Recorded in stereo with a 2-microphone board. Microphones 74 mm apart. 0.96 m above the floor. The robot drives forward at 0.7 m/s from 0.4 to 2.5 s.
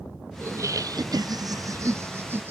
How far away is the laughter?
About 0.8 m.